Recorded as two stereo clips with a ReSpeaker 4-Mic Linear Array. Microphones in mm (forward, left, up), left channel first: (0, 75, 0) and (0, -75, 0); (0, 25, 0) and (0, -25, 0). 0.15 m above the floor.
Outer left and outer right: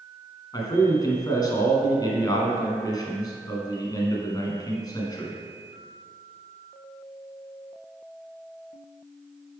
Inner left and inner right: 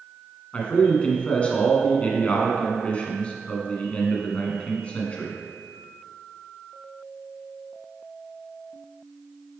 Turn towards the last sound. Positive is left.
turn(degrees=25)  # may be behind; listen again after turning